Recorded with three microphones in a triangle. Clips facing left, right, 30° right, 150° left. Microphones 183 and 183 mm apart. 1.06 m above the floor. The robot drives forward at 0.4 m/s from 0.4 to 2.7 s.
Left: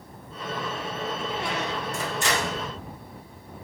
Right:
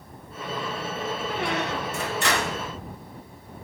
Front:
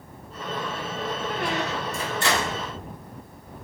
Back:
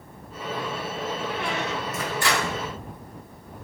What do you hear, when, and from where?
1.3 s a squeak: 70° right, 1.1 m; by 2.7 s 105° right, 1.1 m